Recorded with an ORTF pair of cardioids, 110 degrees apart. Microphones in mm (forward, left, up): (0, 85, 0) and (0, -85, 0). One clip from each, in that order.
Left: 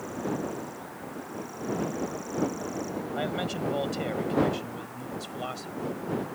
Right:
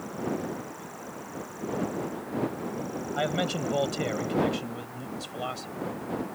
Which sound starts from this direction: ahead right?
A man speaking, at 3.1 s.